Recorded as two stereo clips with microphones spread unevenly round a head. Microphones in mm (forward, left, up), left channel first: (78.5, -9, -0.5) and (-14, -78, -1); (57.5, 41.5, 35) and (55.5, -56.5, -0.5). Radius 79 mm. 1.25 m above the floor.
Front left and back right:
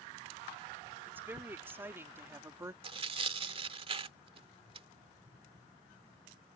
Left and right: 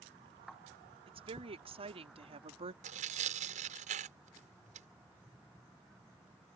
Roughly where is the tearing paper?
Right.